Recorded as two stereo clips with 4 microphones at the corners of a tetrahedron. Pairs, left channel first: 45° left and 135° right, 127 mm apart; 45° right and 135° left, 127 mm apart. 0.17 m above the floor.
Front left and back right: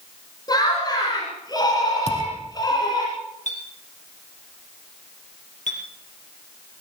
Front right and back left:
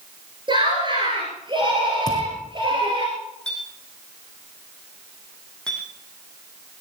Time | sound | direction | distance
0.5 | laughter | 95° left | 2.5 m
2.1 | a thud | 15° left | 4 m
3.5 | a clink | 40° left | 4.5 m